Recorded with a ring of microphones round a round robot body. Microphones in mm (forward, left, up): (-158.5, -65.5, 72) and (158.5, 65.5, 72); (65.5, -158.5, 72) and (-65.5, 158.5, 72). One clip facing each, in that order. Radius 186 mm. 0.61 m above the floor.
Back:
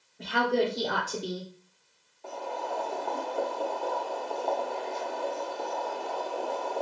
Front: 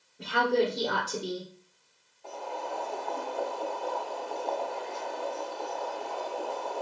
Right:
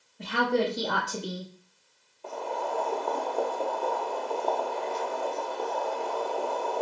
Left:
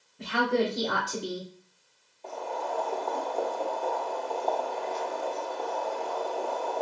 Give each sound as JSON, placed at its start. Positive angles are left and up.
{"t": 0.2, "sound": "a woman speaking", "azimuth_deg": 110, "distance_m": 2.5}
{"t": 2.2, "sound": "boiling", "azimuth_deg": -140, "distance_m": 1.1}